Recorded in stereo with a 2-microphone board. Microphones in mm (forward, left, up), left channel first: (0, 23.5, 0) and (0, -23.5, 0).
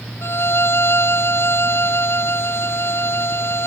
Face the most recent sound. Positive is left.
turn(degrees=60)  # may be behind; listen again after turning